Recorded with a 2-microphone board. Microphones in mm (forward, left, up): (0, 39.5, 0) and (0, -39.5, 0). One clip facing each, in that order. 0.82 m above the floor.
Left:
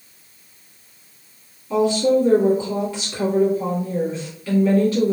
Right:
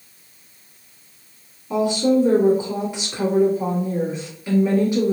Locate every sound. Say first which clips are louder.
1.7 s a woman speaking: left 1 dB; 20° right (ahead or behind), 1.6 m